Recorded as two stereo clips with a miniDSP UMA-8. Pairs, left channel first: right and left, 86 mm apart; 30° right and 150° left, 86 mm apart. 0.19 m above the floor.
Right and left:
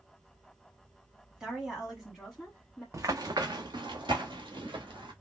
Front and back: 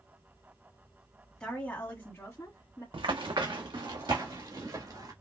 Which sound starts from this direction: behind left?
Running footsteps, at 2.9 s.